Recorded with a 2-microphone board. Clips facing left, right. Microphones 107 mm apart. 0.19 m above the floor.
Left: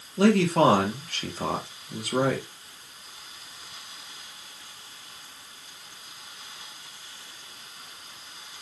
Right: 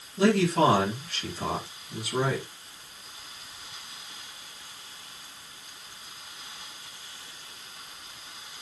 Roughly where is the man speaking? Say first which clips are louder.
Left 2 dB; left.